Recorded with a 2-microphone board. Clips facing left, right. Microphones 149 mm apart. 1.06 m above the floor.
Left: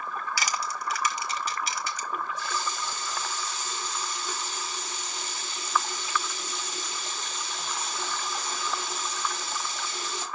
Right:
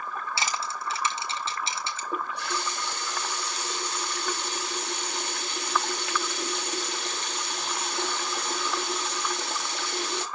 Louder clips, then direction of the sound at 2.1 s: Right 2 dB; 70° right (ahead or behind).